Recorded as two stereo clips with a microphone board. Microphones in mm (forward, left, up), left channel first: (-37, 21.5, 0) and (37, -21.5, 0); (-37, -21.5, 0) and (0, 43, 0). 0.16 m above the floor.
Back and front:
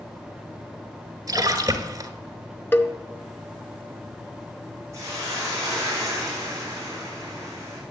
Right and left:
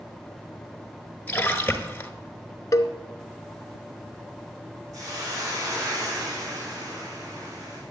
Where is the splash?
55° right, 1.2 m.